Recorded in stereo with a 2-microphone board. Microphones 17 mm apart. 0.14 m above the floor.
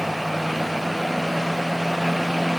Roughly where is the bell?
No bell in this recording.